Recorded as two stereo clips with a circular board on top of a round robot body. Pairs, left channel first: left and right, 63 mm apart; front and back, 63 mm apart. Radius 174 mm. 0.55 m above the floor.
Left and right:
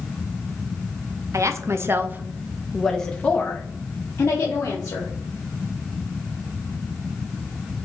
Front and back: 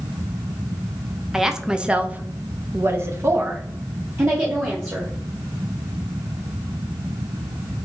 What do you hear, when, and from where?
1.3 s a woman speaking: 95° right, 0.9 m; by 5.1 s 130° left, 1.5 m